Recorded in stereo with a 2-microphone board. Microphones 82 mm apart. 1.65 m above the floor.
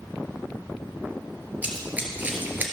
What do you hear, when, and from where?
1.6 s running footsteps: 20° right (ahead or behind), 2 m